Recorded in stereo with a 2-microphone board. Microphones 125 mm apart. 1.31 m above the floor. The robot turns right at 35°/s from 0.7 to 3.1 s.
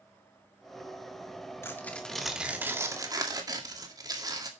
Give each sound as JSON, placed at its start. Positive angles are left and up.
{"t": 1.6, "sound": "tearing paper", "azimuth_deg": 160, "distance_m": 2.0}